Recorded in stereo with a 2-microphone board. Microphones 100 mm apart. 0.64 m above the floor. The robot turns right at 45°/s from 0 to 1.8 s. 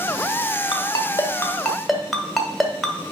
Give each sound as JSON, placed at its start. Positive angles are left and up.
{"t": 0.7, "sound": "a ringtone", "side_deg": 50, "distance_m": 1.3}